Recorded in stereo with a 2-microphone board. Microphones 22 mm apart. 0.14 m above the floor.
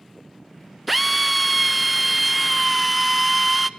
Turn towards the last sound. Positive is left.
turn(degrees=-5)  # may be behind; listen again after turning